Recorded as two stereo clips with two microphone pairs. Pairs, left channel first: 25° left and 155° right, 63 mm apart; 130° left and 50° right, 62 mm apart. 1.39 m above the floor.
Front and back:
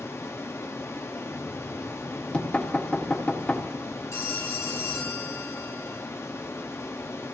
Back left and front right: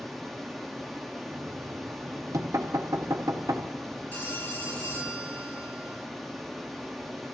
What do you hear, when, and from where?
0.0 s running water: 45° left, 1.0 m
1.3 s knocking: 40° right, 1.3 m
4.1 s a phone ringing: 70° left, 2.5 m